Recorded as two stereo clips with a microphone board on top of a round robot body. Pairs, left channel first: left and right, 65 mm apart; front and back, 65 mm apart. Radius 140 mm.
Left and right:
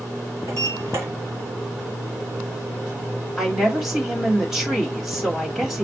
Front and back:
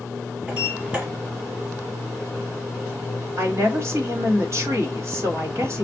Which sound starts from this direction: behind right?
A sliding door, at 0.5 s.